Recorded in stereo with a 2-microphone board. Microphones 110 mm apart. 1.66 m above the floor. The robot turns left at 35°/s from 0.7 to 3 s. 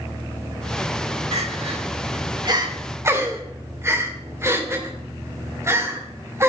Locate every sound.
1.3 s crying: 70° right (ahead or behind), 3 m; by 6.5 s 25° right (ahead or behind), 3 m